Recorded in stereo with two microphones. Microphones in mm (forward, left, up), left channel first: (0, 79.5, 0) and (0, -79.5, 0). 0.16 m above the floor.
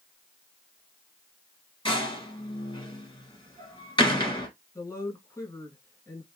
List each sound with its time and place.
1.9 s a door slam: 25° left (ahead or behind), 2 m
4.8 s a woman speaking: 15° left (ahead or behind), 2.5 m